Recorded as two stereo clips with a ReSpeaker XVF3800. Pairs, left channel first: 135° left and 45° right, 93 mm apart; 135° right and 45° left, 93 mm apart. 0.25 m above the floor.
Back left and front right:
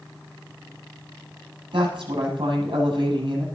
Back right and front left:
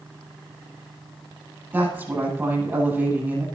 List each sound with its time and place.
1.7 s a woman speaking: 20° right, 8 m